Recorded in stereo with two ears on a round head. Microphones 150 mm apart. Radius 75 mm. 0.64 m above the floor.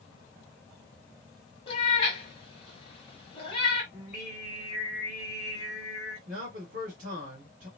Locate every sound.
1.7 s a cat meowing: 35° left (ahead or behind), 1.2 m
3.9 s singing: 10° right (ahead or behind), 2.5 m
6.3 s a man speaking: 45° right (ahead or behind), 1.5 m